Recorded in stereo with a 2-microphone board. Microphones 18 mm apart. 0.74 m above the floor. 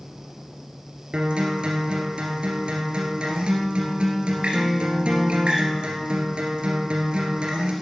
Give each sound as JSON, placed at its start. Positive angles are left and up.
{"t": 1.1, "sound": "a guitar", "side_deg": -55, "distance_m": 2.5}